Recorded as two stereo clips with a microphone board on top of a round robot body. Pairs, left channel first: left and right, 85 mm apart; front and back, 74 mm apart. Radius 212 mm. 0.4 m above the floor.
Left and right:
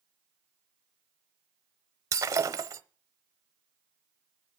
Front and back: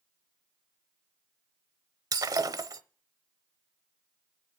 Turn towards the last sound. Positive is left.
turn(degrees=-145)